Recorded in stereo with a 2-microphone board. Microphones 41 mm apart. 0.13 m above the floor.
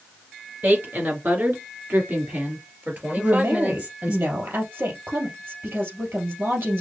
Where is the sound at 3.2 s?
65° right (ahead or behind), 3 m.